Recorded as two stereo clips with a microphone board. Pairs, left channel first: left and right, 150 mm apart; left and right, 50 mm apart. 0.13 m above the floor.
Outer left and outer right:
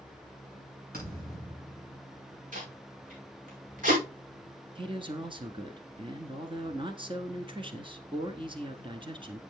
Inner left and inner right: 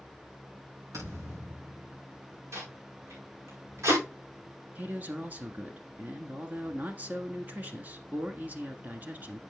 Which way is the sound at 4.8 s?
35° right (ahead or behind).